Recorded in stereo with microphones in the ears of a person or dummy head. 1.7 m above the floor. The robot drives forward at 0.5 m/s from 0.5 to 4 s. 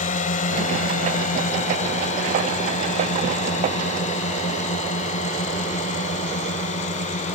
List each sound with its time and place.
0.0 s a drone: 40° left (ahead or behind)